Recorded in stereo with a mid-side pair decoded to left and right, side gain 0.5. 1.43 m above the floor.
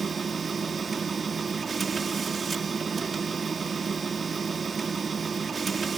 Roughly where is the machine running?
Ahead right.